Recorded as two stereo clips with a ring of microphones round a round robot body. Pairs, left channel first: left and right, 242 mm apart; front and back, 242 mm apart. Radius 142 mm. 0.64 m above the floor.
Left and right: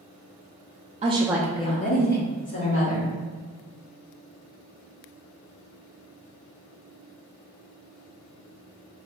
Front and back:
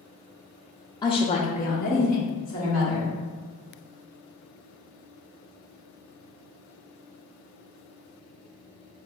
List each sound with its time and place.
1.0 s a woman speaking: 60° right, 0.6 m; by 3.1 s 60° left, 1.8 m